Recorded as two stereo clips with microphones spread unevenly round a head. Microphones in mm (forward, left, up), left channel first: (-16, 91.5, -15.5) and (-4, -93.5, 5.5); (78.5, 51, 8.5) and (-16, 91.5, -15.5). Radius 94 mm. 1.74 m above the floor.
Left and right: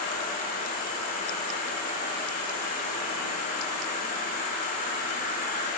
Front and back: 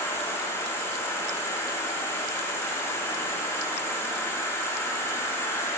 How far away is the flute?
No flute in this recording.